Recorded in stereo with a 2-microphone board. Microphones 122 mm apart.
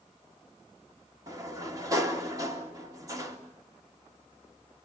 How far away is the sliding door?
About 3 m.